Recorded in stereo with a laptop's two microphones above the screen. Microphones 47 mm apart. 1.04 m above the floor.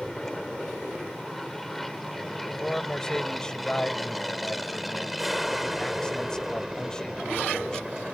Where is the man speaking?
15° left (ahead or behind).